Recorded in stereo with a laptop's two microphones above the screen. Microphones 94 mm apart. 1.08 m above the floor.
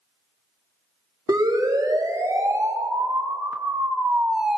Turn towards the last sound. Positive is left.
turn(degrees=-5)  # may be behind; listen again after turning